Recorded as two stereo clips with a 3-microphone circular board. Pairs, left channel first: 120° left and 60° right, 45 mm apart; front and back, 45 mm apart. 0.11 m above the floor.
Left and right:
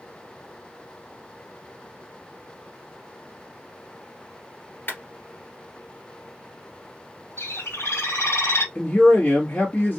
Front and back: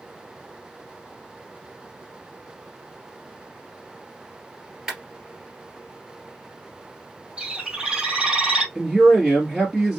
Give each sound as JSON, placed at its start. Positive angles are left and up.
{"t": 4.9, "sound": "a clap", "azimuth_deg": 100, "distance_m": 1.9}
{"t": 7.4, "sound": "a bird", "azimuth_deg": 105, "distance_m": 1.5}
{"t": 8.8, "sound": "a man speaking", "azimuth_deg": 85, "distance_m": 1.7}